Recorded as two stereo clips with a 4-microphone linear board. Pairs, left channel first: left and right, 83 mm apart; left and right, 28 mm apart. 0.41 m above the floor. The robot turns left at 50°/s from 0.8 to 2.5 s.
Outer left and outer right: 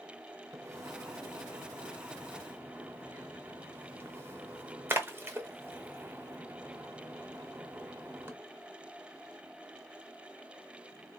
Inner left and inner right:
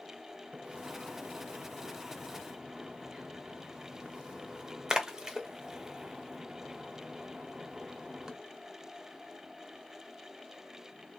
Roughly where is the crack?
I don't hear a crack.